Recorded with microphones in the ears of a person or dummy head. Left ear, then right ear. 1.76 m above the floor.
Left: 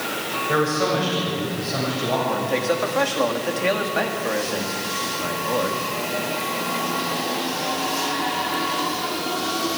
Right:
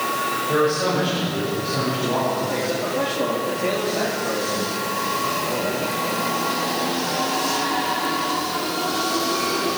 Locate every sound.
0.5 s a man speaking: 60° left (ahead or behind), 8 m
2.3 s a man speaking: 50° left (ahead or behind), 3 m